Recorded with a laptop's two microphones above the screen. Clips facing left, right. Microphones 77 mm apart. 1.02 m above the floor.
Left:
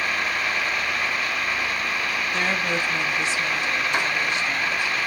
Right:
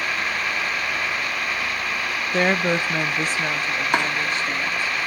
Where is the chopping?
60° right (ahead or behind), 2.5 m.